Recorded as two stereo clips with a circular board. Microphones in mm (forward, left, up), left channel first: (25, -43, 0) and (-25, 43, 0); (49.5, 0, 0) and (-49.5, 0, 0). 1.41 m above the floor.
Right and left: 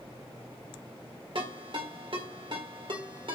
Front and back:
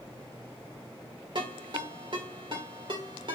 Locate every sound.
1.4 s a ringtone: 145° left, 1.4 m